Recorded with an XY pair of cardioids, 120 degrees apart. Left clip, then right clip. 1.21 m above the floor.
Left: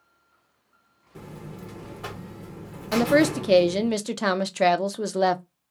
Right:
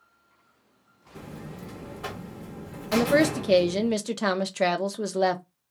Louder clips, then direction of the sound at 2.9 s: Left 1 dB; 15° left.